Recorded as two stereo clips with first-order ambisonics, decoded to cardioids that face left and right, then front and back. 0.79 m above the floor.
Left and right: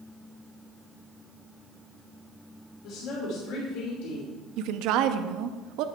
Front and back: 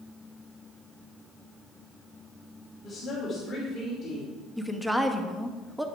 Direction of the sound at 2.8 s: 65° left.